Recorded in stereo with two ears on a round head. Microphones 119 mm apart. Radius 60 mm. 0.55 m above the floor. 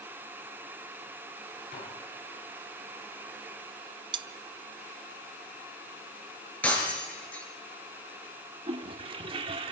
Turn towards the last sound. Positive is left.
turn(degrees=-40)  # may be behind; listen again after turning